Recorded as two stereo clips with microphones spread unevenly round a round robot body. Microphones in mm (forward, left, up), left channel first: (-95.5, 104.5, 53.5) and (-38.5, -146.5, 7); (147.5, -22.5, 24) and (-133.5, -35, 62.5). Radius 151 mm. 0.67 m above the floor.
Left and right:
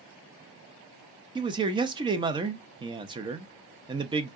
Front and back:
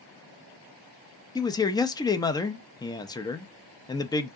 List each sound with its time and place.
1.4 s a man speaking: 45° right, 0.5 m